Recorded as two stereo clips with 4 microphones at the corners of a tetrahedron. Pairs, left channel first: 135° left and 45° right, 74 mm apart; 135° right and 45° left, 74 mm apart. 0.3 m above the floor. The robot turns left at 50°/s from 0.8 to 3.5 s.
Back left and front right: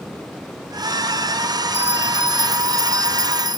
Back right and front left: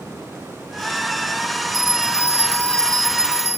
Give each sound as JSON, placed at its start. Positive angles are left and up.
{"t": 1.7, "sound": "a bell", "azimuth_deg": -160}